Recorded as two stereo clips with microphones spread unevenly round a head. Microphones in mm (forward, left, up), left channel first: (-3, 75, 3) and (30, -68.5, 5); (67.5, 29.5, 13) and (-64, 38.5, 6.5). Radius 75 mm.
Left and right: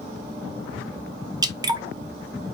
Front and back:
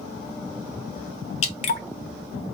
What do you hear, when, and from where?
1.4 s dripping: 20° right, 0.8 m